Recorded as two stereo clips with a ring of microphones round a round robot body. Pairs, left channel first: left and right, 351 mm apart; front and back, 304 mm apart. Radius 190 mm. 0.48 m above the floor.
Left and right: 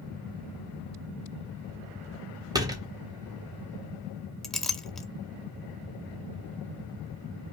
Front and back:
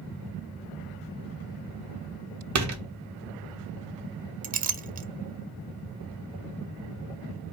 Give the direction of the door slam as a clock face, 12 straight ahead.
6 o'clock.